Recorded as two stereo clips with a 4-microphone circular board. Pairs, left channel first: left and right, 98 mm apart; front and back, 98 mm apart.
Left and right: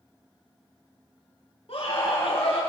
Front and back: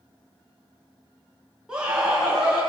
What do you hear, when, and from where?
1.7 s a scream: 95° left, 7 m